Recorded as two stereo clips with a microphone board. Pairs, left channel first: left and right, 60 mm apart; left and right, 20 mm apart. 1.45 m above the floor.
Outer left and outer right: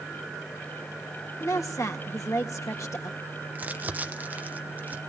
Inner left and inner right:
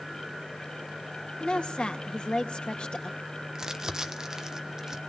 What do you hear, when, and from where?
1.4 s a woman speaking: 65° left (ahead or behind), 1.9 m
3.5 s crumpling: 30° right (ahead or behind), 1.1 m